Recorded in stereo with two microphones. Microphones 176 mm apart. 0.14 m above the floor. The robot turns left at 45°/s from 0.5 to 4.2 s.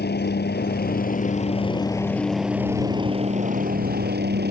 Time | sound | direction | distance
0.0 | a helicopter | 85° left | ?